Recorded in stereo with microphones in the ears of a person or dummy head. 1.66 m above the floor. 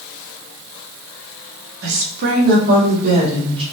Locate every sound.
1.8 s a woman speaking: 70° right (ahead or behind), 1.3 m; by 3.6 s 40° right (ahead or behind), 2 m